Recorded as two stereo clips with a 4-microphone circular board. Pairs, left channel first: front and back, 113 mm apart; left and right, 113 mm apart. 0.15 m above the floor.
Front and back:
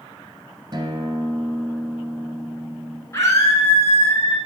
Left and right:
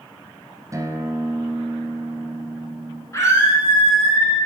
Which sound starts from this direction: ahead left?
A scream, at 3.1 s.